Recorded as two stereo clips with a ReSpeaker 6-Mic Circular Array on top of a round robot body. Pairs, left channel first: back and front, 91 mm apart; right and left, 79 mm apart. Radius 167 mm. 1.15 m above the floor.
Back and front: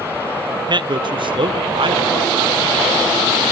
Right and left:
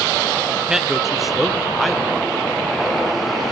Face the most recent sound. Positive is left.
turn(degrees=0)